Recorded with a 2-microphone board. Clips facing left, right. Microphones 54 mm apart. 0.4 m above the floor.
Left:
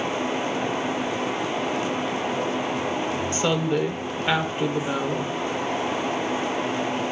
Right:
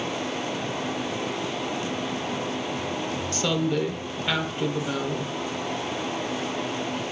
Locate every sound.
3.3 s a woman speaking: 25° left (ahead or behind), 1.2 m